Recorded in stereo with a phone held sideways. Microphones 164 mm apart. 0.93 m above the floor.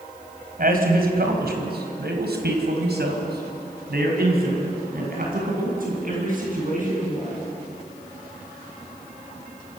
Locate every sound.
0.6 s a man speaking: 60° right (ahead or behind), 4.5 m; by 7.4 s 50° right (ahead or behind), 8.5 m